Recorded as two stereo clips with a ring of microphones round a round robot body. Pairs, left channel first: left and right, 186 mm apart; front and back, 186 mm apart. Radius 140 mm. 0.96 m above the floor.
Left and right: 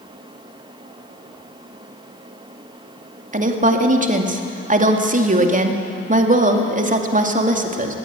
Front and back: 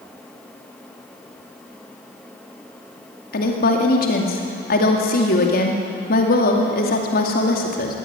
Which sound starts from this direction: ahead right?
A woman speaking, at 3.3 s.